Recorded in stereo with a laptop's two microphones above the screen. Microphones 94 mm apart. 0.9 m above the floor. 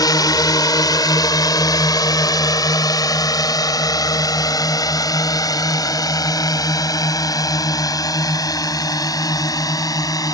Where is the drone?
45° left (ahead or behind); by 10.3 s 40° left (ahead or behind).